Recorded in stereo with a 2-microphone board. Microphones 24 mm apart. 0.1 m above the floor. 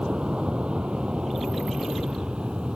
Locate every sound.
0.0 s an aircraft: 45° right (ahead or behind)